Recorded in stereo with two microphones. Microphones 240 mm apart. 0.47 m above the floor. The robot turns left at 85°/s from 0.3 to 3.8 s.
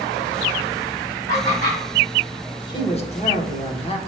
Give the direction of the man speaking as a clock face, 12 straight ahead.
7 o'clock.